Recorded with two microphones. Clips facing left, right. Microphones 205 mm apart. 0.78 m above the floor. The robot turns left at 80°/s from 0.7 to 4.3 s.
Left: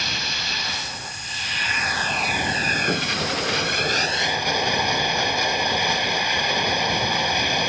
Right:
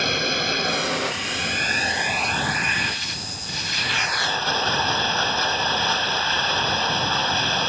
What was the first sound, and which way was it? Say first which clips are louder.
Running water: right 9 dB; 60° right.